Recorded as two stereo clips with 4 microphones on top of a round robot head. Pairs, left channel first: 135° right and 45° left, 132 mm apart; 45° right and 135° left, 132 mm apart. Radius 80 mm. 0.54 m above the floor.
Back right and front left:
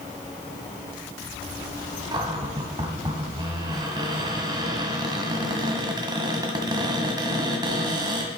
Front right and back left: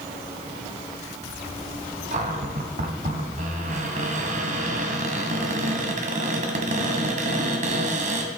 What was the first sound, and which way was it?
A cupboard door, 100° left.